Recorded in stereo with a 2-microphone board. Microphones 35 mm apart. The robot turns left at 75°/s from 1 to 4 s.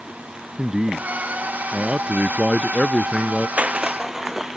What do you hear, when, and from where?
0.6 s a man speaking: 35° right; by 3.5 s 140° left
3.6 s crushing: 140° right; by 4.6 s 170° right